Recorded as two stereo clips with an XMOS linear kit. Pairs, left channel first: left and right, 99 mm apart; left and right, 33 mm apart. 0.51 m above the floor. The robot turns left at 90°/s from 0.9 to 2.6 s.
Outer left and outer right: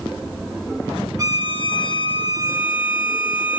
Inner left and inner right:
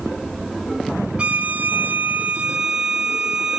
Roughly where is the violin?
Ahead right.